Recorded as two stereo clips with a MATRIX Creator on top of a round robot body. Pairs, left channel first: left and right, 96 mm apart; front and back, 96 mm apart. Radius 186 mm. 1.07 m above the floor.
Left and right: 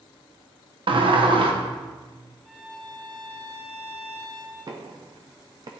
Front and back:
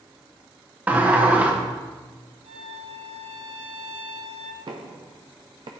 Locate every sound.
0.9 s a sliding door: 110° right, 1.2 m
2.5 s a violin: 170° left, 1.1 m
4.7 s knocking: 140° right, 0.5 m